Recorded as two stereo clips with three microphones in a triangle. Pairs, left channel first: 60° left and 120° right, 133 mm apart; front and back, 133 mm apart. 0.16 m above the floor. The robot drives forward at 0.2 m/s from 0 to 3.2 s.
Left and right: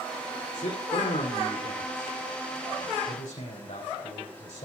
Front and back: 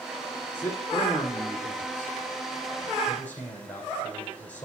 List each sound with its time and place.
0.5 s a man speaking: 75° left, 7.5 m; by 4.7 s 80° left, 7 m